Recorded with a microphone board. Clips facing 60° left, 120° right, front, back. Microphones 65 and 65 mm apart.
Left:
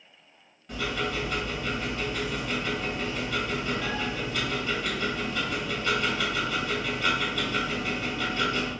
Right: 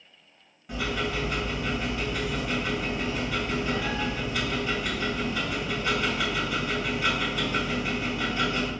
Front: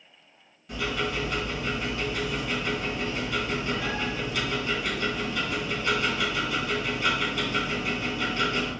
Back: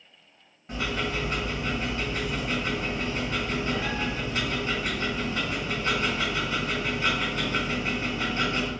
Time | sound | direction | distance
0.7 | ticking | 165° left | 1.8 m